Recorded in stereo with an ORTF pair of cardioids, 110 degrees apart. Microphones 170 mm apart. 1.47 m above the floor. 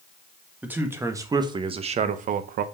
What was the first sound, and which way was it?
A man speaking, 10° right.